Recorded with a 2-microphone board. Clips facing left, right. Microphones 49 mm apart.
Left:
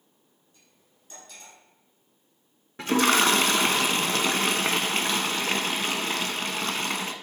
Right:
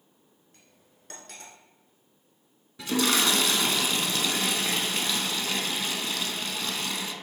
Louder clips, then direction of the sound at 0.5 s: Right 3 dB; 65° right (ahead or behind).